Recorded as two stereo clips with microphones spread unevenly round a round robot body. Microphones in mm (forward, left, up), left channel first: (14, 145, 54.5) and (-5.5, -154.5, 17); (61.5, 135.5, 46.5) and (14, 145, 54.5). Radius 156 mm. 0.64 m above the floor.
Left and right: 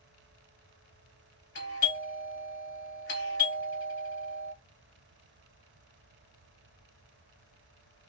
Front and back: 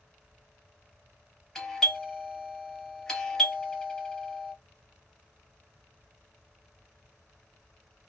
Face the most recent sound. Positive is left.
turn(degrees=60)